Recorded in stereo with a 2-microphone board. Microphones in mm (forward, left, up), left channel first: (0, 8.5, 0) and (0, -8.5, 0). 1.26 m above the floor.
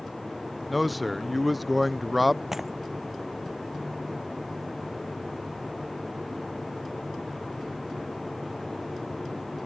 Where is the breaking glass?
15° right (ahead or behind).